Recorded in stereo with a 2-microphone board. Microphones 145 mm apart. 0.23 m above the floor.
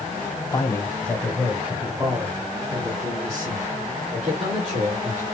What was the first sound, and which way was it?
A man speaking, 25° left (ahead or behind).